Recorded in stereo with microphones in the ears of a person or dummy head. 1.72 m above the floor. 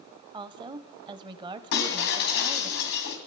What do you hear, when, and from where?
0.3 s a woman speaking: 20° right (ahead or behind), 0.8 m
1.7 s breaking glass: 55° left (ahead or behind), 2.5 m